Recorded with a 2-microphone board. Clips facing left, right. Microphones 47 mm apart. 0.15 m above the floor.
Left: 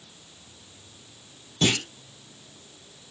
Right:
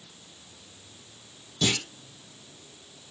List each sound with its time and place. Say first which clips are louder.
1.6 s a clunk: left 3 dB; 40° left (ahead or behind), 3 m